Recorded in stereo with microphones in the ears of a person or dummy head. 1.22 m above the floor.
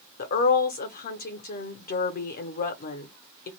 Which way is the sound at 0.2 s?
45° left (ahead or behind).